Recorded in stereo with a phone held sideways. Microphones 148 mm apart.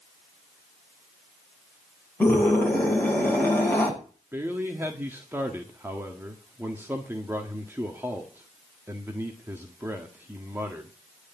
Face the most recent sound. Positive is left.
turn(degrees=-15)  # may be behind; listen again after turning